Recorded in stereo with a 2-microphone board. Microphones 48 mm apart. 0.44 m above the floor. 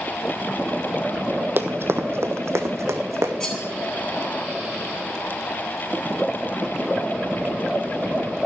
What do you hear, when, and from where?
1.6 s running footsteps: 50° right (ahead or behind), 0.9 m; by 3.3 s 75° right (ahead or behind), 1.8 m
3.4 s cutlery clinking: 15° left (ahead or behind), 2.5 m